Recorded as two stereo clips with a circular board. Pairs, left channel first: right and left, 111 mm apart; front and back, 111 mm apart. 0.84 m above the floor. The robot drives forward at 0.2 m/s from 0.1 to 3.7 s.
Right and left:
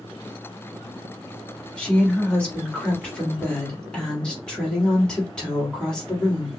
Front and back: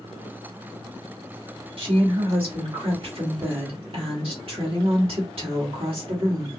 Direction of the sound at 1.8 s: 165° right.